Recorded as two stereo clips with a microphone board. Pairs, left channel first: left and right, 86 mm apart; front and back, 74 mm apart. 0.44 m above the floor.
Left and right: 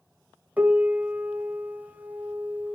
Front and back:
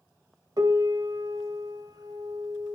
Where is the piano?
160° right, 0.9 m.